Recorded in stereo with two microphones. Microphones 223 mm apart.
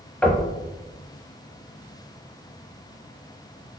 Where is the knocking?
5° left (ahead or behind), 0.7 m.